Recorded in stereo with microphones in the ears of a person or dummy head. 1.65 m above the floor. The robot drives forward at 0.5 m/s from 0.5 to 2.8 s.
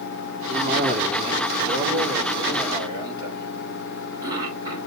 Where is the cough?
30° right (ahead or behind), 2.5 m; by 4.8 s 20° right (ahead or behind), 3.5 m.